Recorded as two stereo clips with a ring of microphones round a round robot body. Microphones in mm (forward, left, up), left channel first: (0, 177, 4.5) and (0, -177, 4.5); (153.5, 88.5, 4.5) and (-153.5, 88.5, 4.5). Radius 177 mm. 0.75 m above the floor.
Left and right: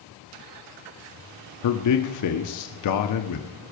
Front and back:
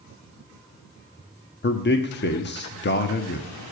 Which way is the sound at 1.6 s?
55° left.